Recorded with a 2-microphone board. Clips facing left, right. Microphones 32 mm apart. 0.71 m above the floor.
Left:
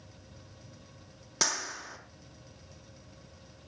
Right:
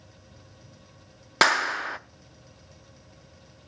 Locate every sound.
1.4 s a clap: 60° right (ahead or behind), 0.7 m